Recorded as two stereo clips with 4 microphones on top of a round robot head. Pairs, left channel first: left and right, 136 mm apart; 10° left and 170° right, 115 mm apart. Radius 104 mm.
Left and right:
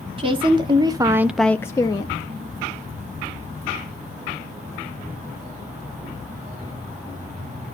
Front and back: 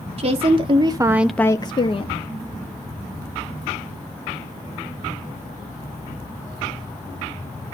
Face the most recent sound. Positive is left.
turn(degrees=35)